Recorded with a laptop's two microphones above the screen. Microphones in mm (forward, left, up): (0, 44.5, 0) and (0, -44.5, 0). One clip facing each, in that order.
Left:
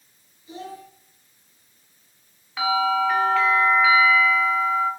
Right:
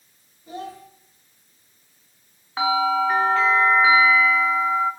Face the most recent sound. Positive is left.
turn(degrees=-35)  # may be behind; listen again after turning